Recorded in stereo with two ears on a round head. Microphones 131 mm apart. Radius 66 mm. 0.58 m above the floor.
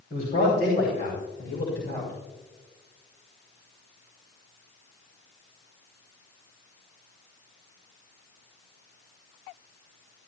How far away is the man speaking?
About 3.5 m.